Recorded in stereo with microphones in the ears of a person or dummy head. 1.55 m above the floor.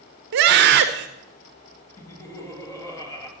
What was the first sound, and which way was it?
A scream, 55° right (ahead or behind).